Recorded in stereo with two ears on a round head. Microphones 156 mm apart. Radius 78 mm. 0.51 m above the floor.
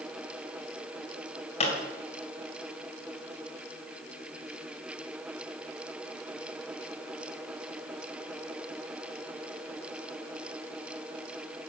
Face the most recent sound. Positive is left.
turn(degrees=35)  # may be behind; listen again after turning